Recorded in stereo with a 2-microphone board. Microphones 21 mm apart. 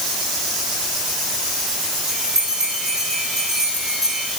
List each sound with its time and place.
2.1 s a bell: 20° right (ahead or behind), 8.5 m